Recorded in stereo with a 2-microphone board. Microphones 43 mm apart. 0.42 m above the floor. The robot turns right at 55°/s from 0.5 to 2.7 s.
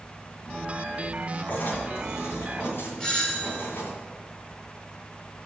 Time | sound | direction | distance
1.5 | writing | 50° left | 2.5 m
3.0 | a doorbell | 15° left (ahead or behind) | 1.7 m